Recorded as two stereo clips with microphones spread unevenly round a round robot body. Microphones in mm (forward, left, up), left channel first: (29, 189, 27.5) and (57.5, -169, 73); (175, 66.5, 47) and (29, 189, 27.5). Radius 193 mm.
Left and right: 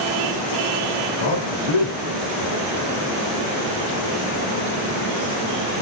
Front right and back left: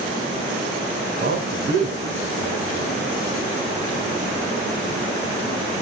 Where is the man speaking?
115° left, 3 m.